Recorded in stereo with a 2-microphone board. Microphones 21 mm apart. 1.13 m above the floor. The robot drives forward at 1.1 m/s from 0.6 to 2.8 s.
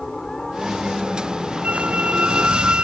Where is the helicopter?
15° left (ahead or behind).